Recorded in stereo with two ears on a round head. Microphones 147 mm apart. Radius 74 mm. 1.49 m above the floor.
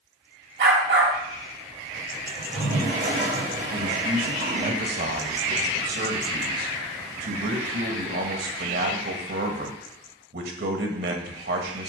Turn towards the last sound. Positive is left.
turn(degrees=-70)  # may be behind; listen again after turning